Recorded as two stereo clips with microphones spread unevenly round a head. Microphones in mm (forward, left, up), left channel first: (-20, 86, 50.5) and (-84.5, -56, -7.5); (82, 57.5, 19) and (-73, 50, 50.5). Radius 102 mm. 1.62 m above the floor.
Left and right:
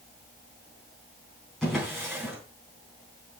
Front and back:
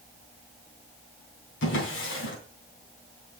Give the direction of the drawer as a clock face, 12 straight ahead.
1 o'clock.